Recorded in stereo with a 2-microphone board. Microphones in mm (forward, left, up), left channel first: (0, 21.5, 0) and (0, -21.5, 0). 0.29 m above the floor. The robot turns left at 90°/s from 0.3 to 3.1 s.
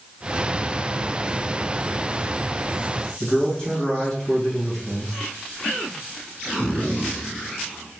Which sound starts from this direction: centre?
A man speaking, at 3.2 s.